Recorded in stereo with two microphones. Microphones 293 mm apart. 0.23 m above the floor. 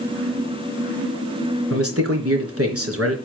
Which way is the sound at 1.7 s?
55° right (ahead or behind).